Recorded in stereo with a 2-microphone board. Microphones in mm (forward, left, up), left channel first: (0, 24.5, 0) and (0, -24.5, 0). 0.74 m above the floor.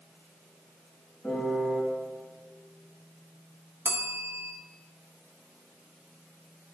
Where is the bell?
55° right (ahead or behind), 1.1 m.